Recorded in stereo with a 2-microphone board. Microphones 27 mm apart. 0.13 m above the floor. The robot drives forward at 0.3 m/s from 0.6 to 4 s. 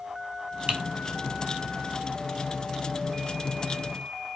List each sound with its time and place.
0.7 s typing on a keyboard: 45° right (ahead or behind), 1.1 m